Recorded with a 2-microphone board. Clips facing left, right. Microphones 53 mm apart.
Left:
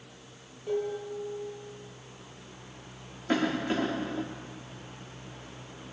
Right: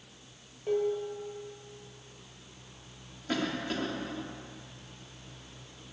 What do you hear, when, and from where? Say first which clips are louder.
0.7 s dishes clattering: right 2 dB; 25° right (ahead or behind), 7 m
3.3 s a cough: left 5 dB; 25° left (ahead or behind), 0.8 m